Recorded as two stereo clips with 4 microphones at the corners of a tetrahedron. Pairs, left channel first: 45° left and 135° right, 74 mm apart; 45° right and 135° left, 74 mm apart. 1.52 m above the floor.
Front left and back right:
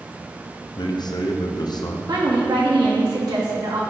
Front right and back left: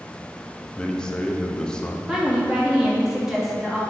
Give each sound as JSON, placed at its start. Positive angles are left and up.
{"t": 0.8, "sound": "a man speaking", "azimuth_deg": 30, "distance_m": 0.9}
{"t": 2.1, "sound": "a woman speaking", "azimuth_deg": -145, "distance_m": 2.0}